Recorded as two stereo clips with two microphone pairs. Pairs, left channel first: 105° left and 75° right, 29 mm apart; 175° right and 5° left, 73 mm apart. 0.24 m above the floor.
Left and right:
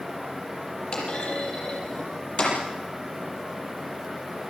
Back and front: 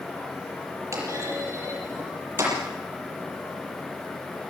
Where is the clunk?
55° left, 8 m.